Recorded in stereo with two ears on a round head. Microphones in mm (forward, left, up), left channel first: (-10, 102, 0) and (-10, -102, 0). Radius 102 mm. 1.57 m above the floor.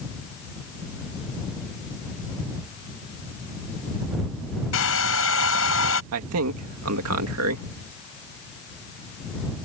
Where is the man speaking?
70° right (ahead or behind).